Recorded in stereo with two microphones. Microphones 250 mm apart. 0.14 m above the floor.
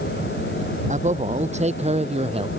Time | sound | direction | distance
0.9 | a man speaking | 30° right (ahead or behind) | ?